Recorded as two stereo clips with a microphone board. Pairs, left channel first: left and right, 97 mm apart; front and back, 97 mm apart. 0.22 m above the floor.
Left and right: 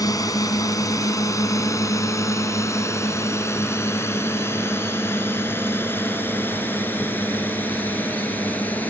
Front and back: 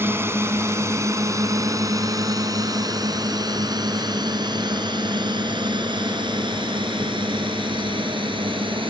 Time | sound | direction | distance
0.0 | a drone | 125° left | ?